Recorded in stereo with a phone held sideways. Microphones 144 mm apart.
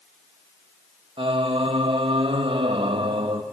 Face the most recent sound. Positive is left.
turn(degrees=-40)  # may be behind; listen again after turning